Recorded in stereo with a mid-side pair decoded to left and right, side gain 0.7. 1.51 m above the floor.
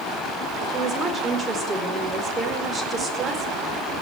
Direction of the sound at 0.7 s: 20° right.